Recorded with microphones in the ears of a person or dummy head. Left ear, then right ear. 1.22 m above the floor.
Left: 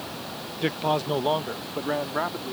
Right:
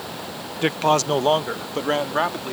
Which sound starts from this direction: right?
A man speaking, at 0.6 s.